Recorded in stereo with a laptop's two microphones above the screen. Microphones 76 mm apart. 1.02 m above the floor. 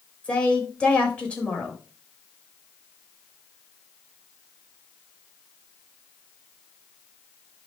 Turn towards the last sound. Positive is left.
turn(degrees=15)  # may be behind; listen again after turning